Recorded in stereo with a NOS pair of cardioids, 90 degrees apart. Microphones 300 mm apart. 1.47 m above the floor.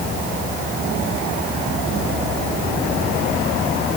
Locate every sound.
Only background noise.